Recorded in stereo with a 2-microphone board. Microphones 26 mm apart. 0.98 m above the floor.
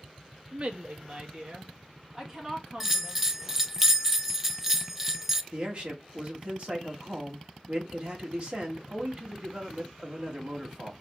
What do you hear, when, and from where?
0.5 s a woman speaking: 50° right (ahead or behind), 1.0 m; by 3.6 s 15° right (ahead or behind), 3 m
2.8 s a bell: 10° right (ahead or behind), 0.5 m
5.5 s a man speaking: 40° right (ahead or behind), 1.8 m